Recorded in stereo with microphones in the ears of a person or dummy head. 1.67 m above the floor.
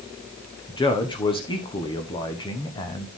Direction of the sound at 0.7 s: 30° left (ahead or behind).